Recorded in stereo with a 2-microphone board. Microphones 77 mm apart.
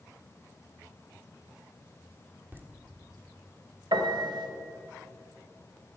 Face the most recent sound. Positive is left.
turn(degrees=-75)  # may be behind; listen again after turning